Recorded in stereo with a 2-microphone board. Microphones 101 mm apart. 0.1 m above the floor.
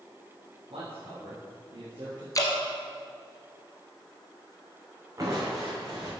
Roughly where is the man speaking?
Right.